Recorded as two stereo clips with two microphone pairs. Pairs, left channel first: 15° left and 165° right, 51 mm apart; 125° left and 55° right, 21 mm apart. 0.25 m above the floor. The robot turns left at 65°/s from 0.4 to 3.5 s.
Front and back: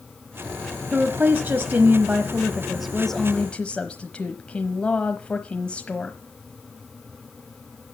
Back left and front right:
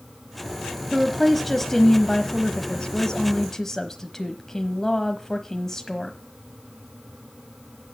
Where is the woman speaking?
120° right, 1.1 m; by 6.2 s 70° left, 1.1 m.